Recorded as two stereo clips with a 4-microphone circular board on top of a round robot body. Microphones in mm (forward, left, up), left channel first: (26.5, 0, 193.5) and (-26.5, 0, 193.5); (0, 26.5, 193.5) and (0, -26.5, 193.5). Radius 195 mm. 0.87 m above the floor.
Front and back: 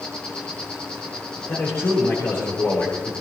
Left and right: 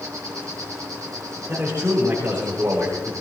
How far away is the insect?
About 1.3 m.